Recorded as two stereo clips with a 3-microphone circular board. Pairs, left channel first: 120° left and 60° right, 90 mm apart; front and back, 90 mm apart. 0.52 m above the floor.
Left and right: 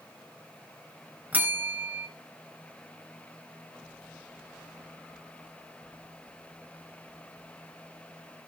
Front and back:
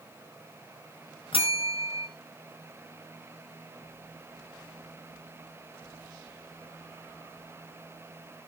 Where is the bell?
10° left, 1.8 m.